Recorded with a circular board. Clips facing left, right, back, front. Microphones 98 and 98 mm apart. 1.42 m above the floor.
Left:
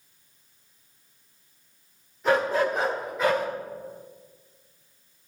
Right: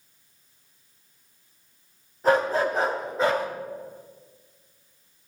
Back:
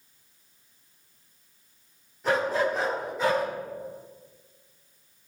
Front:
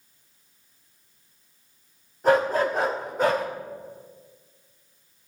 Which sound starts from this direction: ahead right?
A dog barking, at 2.2 s.